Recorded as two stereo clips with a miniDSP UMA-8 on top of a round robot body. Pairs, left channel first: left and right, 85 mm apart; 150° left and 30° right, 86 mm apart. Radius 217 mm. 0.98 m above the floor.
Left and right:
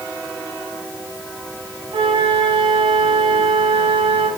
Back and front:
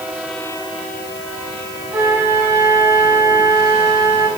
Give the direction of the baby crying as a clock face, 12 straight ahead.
I don't hear a baby crying.